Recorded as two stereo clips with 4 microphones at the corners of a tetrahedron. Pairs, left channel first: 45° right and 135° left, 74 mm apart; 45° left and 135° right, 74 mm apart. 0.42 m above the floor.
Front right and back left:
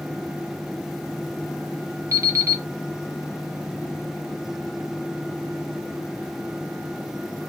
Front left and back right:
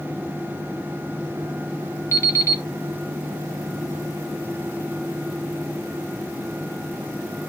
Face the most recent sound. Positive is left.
turn(degrees=95)